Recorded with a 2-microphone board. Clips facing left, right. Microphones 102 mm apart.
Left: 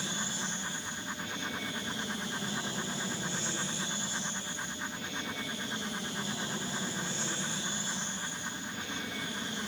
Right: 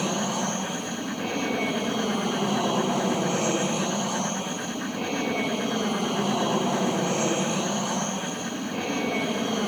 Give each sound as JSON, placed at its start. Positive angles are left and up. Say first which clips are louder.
{"t": 0.0, "sound": "an aircraft", "louder": "right 12 dB", "side_deg": -65}